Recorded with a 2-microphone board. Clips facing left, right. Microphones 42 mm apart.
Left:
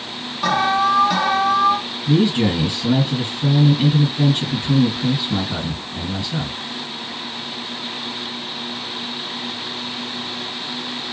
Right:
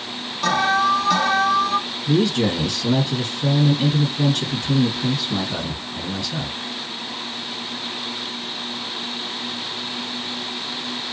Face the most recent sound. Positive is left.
turn(degrees=25)  # may be behind; listen again after turning